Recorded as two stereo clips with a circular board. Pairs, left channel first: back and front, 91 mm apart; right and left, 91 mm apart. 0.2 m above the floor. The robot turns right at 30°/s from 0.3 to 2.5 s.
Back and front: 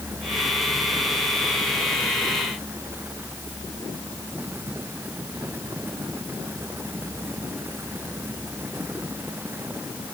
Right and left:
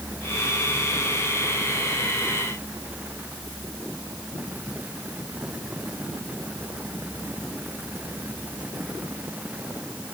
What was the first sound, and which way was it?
Only background noise.